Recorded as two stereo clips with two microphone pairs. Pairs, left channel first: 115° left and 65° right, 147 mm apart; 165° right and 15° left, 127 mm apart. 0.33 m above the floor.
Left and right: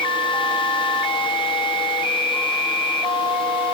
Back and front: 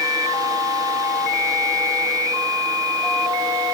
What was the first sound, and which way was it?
Only background noise.